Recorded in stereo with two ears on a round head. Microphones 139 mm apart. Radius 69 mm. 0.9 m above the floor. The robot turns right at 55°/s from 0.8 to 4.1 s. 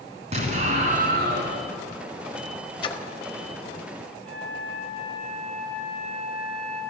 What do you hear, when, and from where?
0.3 s an explosion: 135° right, 3.5 m; by 1.6 s 95° right, 3.5 m
2.8 s a splash: 35° left (ahead or behind), 1.3 m; by 3.0 s 20° left (ahead or behind), 1.3 m
4.2 s a flute: 5° left (ahead or behind), 9 m